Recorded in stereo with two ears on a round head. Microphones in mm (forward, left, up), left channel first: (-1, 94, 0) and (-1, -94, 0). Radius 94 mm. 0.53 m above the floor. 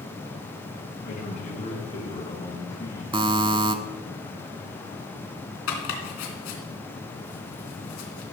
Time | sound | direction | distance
1.1 | a man speaking | 45° left (ahead or behind) | 5.5 m
3.1 | a buzzer | 25° right (ahead or behind) | 0.8 m
5.7 | chopping | 70° left (ahead or behind) | 2.5 m